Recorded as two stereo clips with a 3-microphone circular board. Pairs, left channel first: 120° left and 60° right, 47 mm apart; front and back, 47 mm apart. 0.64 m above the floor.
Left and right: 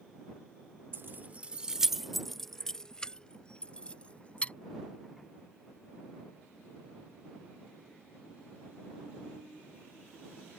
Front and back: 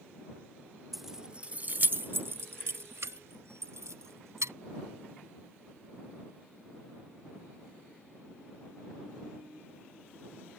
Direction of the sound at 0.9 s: 95° right.